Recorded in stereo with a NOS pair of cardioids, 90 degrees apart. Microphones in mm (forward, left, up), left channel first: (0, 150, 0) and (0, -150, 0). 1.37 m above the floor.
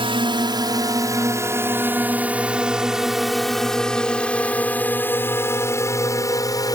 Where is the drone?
15° right; by 6.8 s 10° left.